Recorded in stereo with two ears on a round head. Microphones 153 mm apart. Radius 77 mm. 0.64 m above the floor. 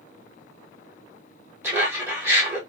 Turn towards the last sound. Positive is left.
turn(degrees=-15)  # may be behind; listen again after turning